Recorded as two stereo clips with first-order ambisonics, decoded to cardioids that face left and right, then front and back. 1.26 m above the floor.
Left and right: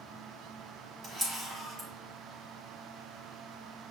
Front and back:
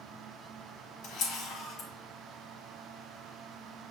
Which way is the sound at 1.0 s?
25° right.